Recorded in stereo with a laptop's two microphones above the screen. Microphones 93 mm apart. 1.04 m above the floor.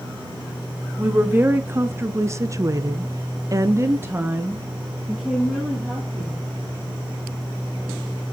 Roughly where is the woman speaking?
Right.